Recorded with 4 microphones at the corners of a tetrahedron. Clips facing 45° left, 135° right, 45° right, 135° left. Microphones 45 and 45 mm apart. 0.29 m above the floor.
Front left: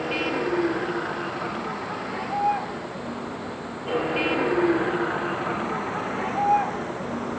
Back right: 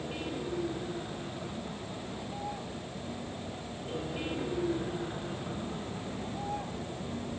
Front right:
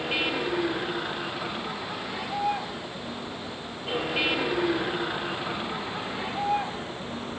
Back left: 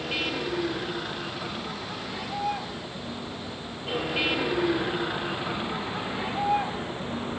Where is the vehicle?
35° left; by 7.4 s 55° left.